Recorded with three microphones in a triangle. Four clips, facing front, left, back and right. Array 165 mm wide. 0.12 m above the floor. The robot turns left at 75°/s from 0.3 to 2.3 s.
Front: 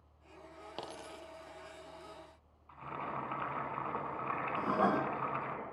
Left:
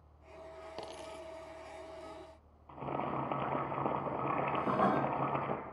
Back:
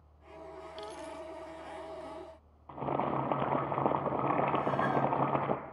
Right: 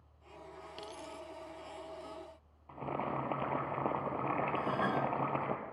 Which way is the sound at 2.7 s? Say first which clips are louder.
Even, back 9 dB; 175° left.